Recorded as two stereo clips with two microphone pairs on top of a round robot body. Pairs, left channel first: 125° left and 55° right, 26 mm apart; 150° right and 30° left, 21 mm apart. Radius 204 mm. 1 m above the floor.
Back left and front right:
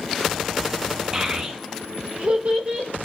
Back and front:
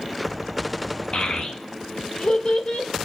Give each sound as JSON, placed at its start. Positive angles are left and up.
{"t": 1.1, "sound": "a child speaking", "azimuth_deg": -120, "distance_m": 0.7}